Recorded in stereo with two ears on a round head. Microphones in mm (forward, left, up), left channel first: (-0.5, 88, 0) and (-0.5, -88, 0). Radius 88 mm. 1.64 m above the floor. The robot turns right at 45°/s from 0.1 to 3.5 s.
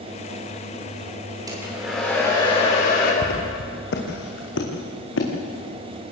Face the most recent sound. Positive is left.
turn(degrees=65)  # may be behind; listen again after turning